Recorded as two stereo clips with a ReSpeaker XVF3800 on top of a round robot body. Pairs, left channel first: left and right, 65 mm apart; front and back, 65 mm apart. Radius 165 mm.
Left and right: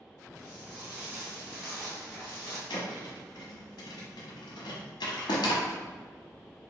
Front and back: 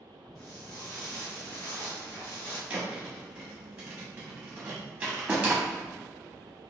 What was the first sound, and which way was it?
Footsteps, 25° right.